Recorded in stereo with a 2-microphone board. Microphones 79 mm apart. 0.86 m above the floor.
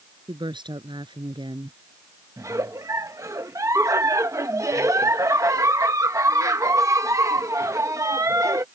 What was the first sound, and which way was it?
A woman speaking, 80° right.